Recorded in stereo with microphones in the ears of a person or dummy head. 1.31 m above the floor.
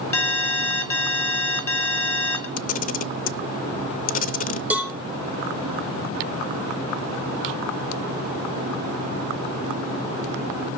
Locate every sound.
0.1 s an alarm: 15° left (ahead or behind), 3.5 m
2.6 s a camera shutter: 45° left (ahead or behind), 0.6 m
4.7 s a cowbell: 10° right (ahead or behind), 1.8 m